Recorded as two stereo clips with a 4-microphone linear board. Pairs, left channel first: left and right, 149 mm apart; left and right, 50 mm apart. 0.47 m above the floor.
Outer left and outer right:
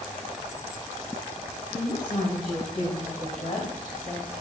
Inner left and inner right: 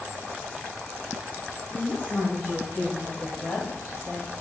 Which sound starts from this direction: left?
A woman speaking, at 1.7 s.